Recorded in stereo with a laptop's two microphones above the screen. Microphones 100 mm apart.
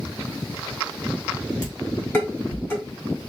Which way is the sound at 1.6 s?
20° left (ahead or behind).